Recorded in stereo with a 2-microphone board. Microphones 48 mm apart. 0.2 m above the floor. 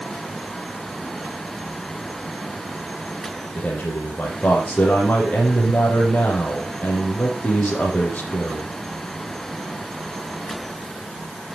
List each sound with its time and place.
3.5 s a man speaking: 35° left (ahead or behind), 6.5 m